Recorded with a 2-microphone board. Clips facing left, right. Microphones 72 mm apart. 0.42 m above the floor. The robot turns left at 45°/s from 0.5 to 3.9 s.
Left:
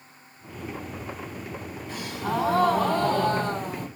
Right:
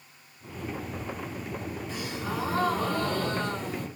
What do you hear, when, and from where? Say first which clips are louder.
1.9 s a gasp: left 7 dB; 125° left, 3 m; by 3.9 s 35° left, 3 m